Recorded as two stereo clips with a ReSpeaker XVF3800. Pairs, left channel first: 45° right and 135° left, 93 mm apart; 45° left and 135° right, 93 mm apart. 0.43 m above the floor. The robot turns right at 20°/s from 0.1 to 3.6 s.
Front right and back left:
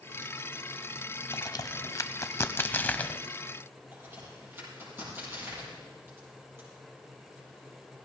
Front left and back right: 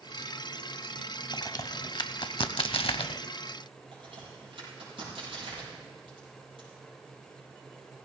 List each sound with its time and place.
1.3 s a crack: 5° right, 0.6 m; by 3.2 s 35° left, 0.6 m
3.9 s a crack: 160° right, 7.5 m